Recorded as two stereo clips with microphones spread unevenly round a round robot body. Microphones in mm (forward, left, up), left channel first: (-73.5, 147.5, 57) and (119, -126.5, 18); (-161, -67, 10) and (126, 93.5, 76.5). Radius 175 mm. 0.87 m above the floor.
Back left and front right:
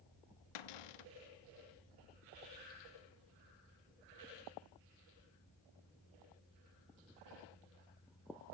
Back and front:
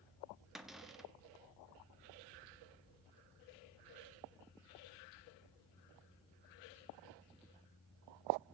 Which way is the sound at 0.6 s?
120° left.